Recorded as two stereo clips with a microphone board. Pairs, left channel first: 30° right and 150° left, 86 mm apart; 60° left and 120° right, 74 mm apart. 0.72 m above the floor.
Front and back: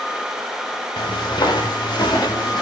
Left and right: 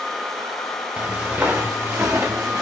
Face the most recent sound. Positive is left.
turn(degrees=-75)